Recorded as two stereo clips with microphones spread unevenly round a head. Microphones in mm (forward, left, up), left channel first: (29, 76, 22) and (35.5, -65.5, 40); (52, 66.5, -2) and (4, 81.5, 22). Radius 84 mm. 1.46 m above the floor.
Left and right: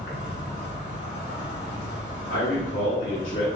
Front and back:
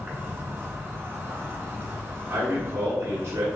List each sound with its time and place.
0.0 s an insect: 115° left, 1.7 m
2.3 s a man speaking: 130° left, 1.5 m